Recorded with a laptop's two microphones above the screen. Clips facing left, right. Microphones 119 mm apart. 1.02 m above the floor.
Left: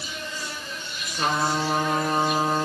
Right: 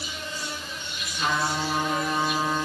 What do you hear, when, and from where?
0.0 s an insect: 25° right (ahead or behind), 7.5 m
1.1 s a trumpet: 40° left (ahead or behind), 5 m